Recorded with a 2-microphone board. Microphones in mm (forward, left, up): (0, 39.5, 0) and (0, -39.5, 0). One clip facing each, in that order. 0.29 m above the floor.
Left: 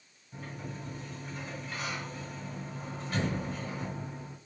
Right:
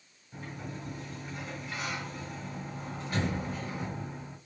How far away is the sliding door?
About 3.5 m.